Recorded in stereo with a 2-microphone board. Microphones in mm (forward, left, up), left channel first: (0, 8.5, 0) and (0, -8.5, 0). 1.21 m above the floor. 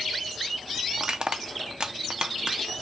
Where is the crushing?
55° right (ahead or behind), 0.7 m.